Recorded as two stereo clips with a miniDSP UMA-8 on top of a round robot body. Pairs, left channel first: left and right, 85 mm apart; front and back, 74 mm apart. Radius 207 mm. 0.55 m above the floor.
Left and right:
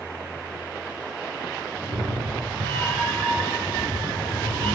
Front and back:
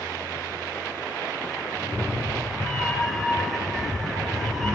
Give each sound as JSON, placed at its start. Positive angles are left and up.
{"t": 1.8, "sound": "a cat meowing", "azimuth_deg": -60, "distance_m": 6.0}